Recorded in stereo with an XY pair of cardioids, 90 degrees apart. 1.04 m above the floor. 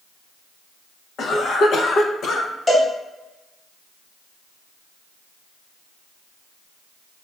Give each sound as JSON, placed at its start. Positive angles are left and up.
{"t": 1.2, "sound": "a cough", "azimuth_deg": 65, "distance_m": 0.6}
{"t": 2.7, "sound": "a cowbell", "azimuth_deg": 30, "distance_m": 1.0}